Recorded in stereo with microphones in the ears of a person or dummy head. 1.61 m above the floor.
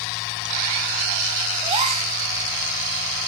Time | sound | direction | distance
1.6 | a gasp | 30° right (ahead or behind) | 1.2 m